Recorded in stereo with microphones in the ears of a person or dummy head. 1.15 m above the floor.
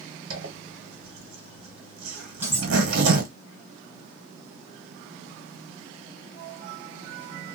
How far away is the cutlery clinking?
About 0.6 m.